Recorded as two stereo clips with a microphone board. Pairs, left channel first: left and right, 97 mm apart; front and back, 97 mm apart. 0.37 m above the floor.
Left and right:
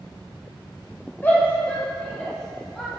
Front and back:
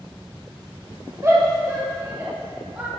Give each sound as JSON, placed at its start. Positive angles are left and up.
{"t": 1.2, "sound": "a shout", "azimuth_deg": 145, "distance_m": 1.9}